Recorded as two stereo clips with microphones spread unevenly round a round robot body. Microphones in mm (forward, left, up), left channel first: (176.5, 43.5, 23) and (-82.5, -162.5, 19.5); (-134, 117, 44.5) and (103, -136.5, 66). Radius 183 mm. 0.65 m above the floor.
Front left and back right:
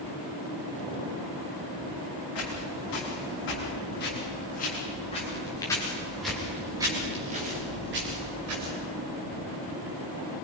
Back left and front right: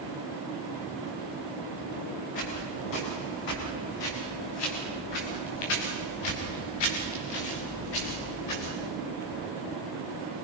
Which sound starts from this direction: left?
Footsteps, at 2.4 s.